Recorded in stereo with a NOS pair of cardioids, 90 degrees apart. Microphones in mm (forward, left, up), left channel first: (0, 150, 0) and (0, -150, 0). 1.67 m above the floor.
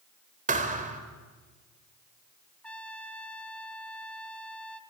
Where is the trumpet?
5° left, 1.3 m.